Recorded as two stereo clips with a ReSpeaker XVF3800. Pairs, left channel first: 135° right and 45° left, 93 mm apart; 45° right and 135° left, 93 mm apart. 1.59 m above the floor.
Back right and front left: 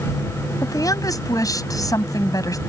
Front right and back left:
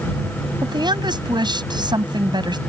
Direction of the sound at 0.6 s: 175° left.